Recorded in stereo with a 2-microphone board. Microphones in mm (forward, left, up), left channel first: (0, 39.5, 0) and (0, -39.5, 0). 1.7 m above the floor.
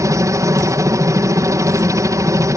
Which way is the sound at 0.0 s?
45° right (ahead or behind).